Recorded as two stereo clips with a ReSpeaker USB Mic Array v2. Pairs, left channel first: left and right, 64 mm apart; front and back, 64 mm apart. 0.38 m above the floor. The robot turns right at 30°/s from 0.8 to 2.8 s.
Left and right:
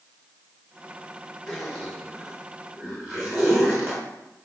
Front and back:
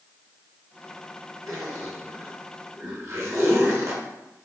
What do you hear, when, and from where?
1.5 s a zipper: 175° left, 1.3 m; by 4.5 s 145° right, 1.3 m